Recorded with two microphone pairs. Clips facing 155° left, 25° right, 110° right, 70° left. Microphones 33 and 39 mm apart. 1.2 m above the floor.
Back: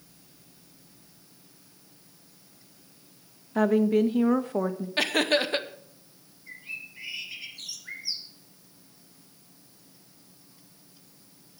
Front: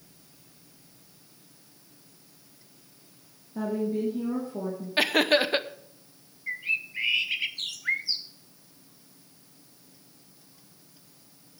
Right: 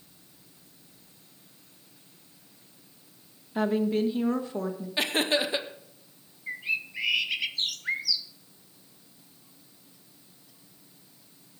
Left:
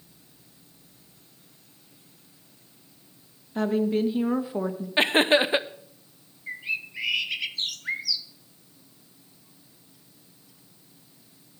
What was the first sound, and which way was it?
A woman speaking, 165° left.